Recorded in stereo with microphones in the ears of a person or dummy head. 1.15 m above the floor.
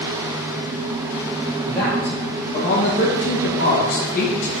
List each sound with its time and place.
1.6 s a man speaking: 20° left (ahead or behind), 2.5 m; by 4.5 s 40° left (ahead or behind), 1.9 m